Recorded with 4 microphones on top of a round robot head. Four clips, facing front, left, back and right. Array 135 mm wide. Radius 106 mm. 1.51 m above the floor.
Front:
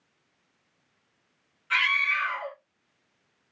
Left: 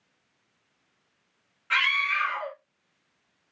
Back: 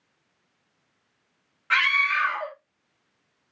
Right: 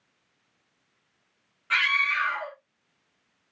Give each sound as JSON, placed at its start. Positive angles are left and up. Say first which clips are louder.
{"t": 1.7, "sound": "a scream", "louder": "even, back 4 dB", "azimuth_deg": -175, "distance_m": 1.0}